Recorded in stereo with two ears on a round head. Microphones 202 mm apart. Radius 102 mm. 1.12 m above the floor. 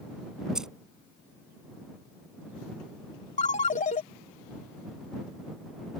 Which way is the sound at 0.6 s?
5° right (ahead or behind).